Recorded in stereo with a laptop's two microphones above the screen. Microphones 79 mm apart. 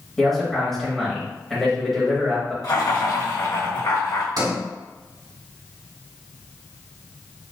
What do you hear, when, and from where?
0.2 s a man speaking: 5° left (ahead or behind), 1.2 m
2.6 s laughter: 60° left (ahead or behind), 1.4 m
4.4 s a sliding door: 70° right (ahead or behind), 1.8 m